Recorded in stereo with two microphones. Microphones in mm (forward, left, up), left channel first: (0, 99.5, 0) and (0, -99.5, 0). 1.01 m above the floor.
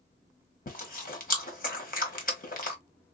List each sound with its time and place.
0.7 s chewing: 45° left (ahead or behind), 1.0 m